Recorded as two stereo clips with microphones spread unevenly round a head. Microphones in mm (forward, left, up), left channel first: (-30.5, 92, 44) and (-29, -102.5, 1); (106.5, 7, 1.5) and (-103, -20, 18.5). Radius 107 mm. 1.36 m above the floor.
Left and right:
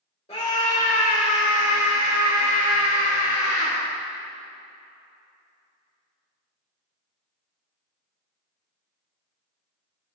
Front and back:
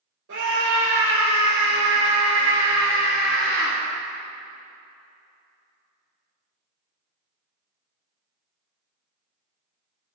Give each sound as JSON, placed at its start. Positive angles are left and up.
{"t": 0.3, "sound": "a scream", "azimuth_deg": 150, "distance_m": 5.0}